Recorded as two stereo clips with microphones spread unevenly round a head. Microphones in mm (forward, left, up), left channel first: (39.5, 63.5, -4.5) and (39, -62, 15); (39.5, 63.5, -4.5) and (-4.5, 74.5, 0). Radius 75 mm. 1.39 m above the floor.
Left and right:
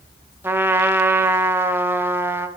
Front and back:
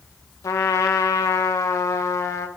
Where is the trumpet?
15° right, 0.8 m.